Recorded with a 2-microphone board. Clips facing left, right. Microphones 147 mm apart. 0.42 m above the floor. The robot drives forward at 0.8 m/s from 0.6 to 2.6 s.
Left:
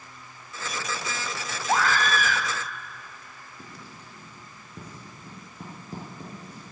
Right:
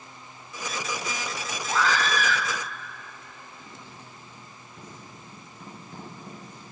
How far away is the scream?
About 3 m.